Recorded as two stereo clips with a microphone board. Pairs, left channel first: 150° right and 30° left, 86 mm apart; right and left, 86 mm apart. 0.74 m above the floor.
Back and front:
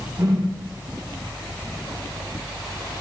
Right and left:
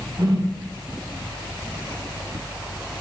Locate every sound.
0.2 s a whoosh: 50° left, 4 m